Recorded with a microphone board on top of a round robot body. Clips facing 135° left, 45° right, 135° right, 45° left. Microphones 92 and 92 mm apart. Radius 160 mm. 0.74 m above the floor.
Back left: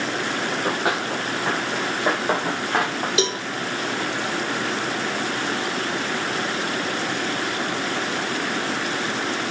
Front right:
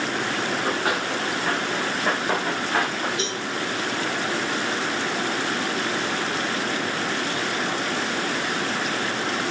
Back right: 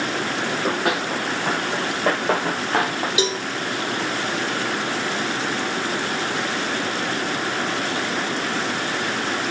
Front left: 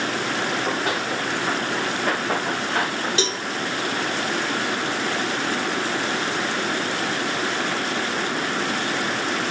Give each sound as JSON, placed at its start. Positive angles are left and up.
{"t": 0.5, "sound": "running footsteps", "azimuth_deg": -155, "distance_m": 7.5}
{"t": 3.2, "sound": "a cowbell", "azimuth_deg": 145, "distance_m": 1.5}